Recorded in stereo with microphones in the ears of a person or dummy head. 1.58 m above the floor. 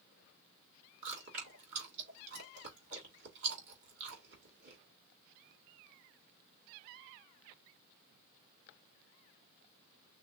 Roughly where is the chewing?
Right.